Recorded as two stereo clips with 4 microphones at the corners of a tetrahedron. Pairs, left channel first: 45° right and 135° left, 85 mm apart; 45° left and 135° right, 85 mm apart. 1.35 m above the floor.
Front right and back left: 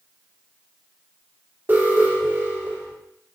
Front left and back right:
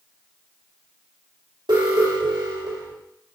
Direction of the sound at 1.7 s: 160° right.